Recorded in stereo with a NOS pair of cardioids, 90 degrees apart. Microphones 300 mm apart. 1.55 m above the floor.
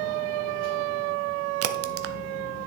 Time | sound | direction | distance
1.6 | a crack | 50° right | 0.6 m